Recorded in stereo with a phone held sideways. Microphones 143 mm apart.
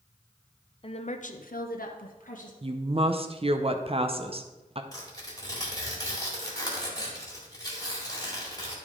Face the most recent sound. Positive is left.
turn(degrees=25)  # may be behind; listen again after turning